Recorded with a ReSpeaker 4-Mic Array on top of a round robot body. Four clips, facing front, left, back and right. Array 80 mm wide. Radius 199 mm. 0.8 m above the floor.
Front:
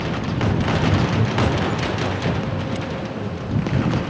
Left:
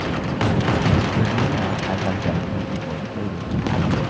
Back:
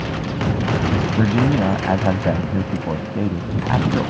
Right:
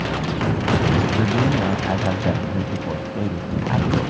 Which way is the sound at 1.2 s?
170° right.